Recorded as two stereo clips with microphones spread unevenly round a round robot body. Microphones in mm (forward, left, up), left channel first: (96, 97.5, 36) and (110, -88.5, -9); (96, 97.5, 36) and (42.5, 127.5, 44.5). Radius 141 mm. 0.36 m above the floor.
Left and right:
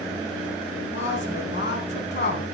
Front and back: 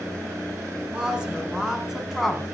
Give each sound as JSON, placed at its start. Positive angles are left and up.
{"t": 0.9, "sound": "a woman speaking", "azimuth_deg": 75, "distance_m": 5.5}